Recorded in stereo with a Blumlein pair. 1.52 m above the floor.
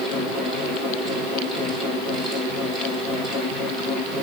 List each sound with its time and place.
0.0 s a fan: 5° left, 4 m